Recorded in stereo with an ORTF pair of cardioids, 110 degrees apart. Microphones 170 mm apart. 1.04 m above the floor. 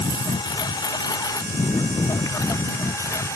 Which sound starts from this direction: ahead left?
A lawn mower, at 0.0 s.